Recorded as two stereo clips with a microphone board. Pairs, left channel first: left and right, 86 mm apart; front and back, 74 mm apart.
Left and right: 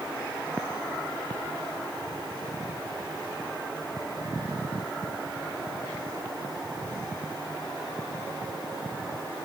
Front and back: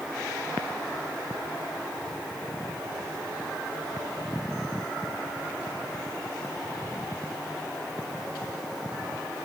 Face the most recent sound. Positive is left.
No sound to turn to.